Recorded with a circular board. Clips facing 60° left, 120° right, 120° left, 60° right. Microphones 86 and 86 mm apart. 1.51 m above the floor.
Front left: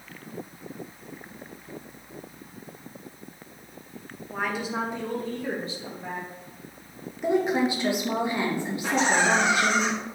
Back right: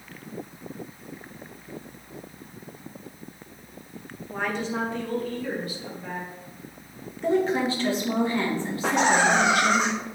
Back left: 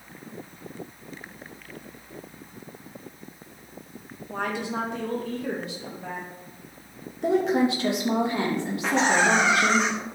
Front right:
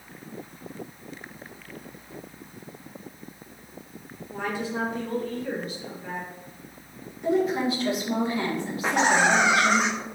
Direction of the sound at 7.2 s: 135° left.